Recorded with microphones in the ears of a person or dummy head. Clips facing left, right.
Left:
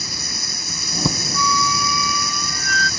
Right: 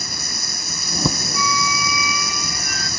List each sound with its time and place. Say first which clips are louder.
0.0 s running water: even; 55° right (ahead or behind)
1.3 s a flute: left 2 dB; 15° right (ahead or behind)